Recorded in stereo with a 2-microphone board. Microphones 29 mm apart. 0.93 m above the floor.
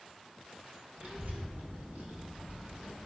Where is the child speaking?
80° right, 3.5 m; by 3.0 s 70° right (ahead or behind), 6.5 m.